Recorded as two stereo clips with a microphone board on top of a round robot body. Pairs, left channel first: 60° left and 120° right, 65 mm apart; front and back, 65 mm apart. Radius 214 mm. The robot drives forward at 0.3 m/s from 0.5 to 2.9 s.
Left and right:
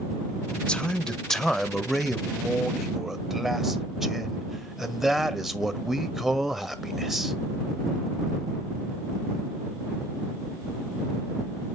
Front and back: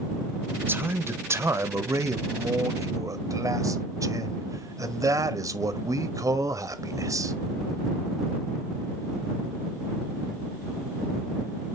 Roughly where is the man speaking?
Behind left.